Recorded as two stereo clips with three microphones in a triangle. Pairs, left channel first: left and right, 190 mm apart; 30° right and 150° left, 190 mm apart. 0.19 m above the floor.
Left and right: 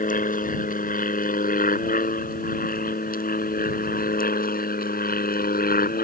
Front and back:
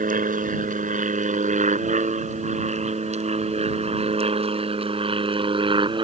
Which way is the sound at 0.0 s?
120° left.